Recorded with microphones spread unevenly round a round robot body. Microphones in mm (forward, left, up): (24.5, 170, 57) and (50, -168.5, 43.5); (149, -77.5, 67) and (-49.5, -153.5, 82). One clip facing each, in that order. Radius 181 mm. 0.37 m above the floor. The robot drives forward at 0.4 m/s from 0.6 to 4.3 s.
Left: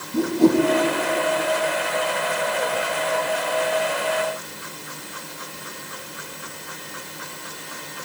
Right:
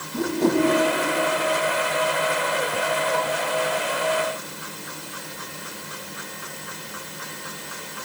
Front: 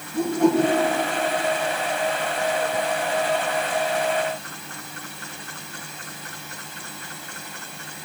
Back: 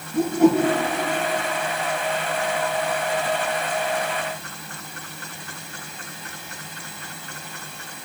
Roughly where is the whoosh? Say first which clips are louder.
Left 4 dB, back 2 dB; behind left.